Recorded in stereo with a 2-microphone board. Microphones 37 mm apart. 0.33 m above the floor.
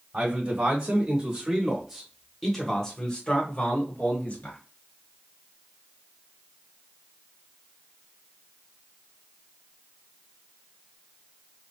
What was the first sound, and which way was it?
A man speaking, 40° right (ahead or behind).